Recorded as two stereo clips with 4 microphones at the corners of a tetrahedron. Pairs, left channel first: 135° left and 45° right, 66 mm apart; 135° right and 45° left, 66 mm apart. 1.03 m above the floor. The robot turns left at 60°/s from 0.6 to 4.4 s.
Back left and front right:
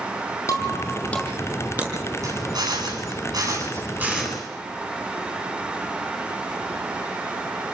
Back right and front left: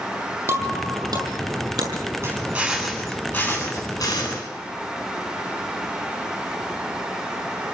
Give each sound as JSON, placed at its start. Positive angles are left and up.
{"t": 0.5, "sound": "breaking glass", "azimuth_deg": 95, "distance_m": 7.0}
{"t": 2.2, "sound": "a drill", "azimuth_deg": -10, "distance_m": 9.5}